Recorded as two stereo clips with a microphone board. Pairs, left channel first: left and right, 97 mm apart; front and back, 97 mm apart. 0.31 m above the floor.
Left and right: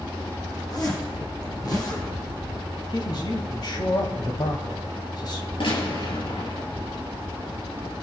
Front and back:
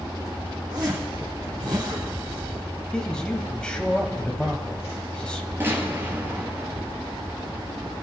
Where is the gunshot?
115° left, 6 m.